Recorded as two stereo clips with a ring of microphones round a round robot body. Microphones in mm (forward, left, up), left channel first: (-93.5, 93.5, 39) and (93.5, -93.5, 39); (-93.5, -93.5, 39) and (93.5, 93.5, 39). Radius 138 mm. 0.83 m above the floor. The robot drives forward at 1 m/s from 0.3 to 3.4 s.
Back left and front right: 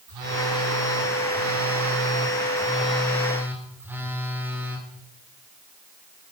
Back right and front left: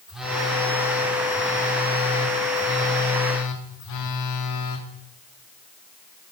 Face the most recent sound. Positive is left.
turn(degrees=-130)